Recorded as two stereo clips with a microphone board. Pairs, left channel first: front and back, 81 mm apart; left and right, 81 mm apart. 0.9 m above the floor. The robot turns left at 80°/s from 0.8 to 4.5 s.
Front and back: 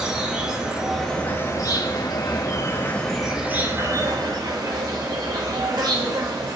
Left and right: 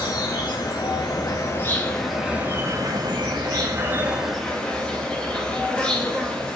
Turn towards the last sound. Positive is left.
turn(degrees=165)